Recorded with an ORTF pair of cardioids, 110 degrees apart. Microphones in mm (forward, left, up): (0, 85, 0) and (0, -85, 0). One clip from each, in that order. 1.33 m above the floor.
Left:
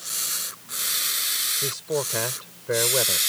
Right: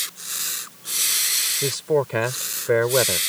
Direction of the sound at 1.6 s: 40° right.